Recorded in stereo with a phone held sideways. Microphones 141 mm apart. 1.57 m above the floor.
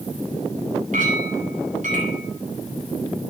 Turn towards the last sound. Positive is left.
turn(degrees=-65)  # may be behind; listen again after turning